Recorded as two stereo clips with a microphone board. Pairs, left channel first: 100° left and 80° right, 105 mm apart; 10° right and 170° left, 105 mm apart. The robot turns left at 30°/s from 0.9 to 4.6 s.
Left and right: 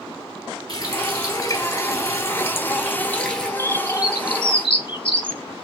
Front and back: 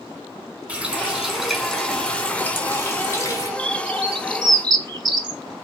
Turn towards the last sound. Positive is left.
turn(degrees=130)